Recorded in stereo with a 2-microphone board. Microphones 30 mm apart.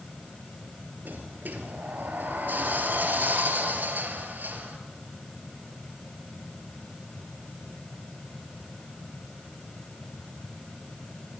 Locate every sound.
1.1 s a sliding door: 65° right (ahead or behind), 3 m